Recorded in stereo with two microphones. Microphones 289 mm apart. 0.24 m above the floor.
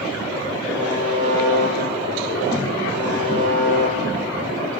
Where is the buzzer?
40° left (ahead or behind), 8 m.